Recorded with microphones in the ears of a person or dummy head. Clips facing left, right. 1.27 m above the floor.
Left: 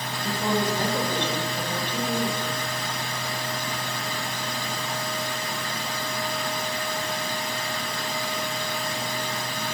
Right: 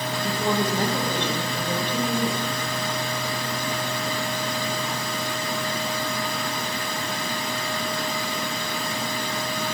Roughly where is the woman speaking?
Centre.